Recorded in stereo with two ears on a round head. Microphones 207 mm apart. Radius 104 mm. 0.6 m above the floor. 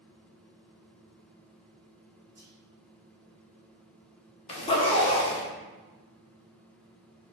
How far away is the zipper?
About 0.8 m.